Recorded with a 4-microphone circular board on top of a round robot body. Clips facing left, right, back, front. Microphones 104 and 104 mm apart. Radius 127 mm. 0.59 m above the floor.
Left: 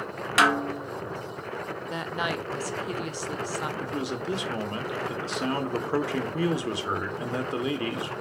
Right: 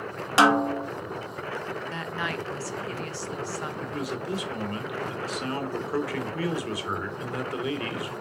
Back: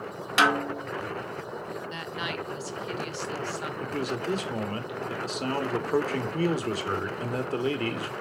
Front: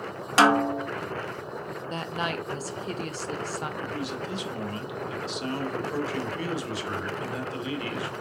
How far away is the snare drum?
About 0.8 m.